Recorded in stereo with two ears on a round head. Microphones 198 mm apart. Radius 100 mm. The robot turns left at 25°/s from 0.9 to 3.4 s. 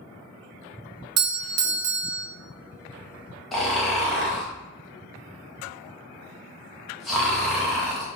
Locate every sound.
1.2 s a doorbell: 75° right (ahead or behind), 0.7 m; by 2.2 s 65° right (ahead or behind), 0.7 m
3.5 s snoring: centre (ahead or behind), 0.9 m